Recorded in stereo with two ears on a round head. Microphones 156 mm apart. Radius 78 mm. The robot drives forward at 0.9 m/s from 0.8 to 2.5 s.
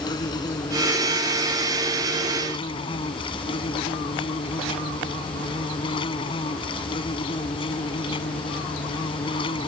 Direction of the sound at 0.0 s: 25° left (ahead or behind).